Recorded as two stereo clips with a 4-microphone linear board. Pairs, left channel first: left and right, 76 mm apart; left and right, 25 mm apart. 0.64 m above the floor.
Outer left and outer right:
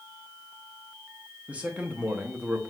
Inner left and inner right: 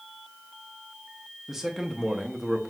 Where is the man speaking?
15° right (ahead or behind), 0.7 m.